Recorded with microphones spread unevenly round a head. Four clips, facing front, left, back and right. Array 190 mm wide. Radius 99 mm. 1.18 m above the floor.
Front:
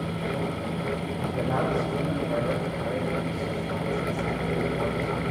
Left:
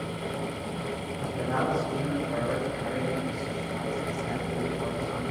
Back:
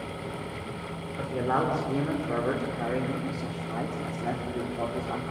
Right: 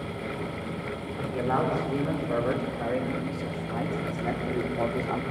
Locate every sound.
1.2 s a man speaking: 170° right, 4.5 m; by 5.2 s 125° right, 3.5 m